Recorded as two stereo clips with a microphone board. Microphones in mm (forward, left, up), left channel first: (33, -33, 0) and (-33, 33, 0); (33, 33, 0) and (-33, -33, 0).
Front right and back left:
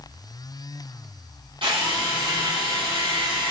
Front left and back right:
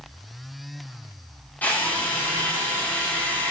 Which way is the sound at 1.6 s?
115° left.